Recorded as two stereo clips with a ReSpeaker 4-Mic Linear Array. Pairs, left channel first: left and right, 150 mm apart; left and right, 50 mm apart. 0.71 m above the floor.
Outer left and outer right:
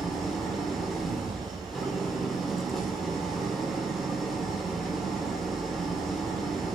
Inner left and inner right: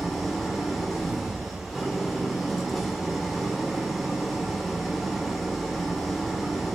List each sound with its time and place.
0.0 s an engine running: centre (ahead or behind), 1.7 m